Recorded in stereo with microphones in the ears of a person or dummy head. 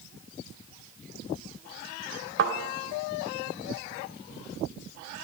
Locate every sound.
2.4 s a thud: 60° right (ahead or behind), 1.9 m